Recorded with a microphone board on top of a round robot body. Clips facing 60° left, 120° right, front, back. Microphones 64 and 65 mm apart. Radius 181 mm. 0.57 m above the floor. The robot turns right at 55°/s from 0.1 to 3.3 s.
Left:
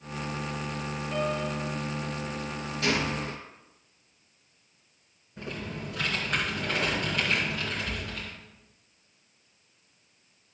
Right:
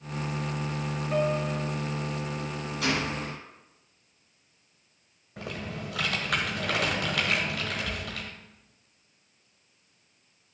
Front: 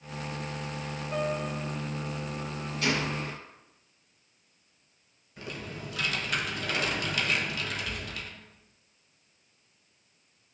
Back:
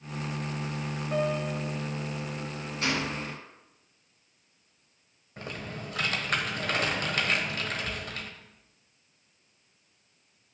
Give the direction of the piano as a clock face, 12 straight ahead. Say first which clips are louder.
Right 3 dB, back 2 dB; 6 o'clock.